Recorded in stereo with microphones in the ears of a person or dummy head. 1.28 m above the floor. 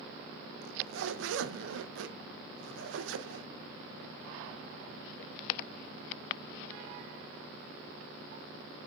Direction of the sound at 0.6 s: 75° right (ahead or behind).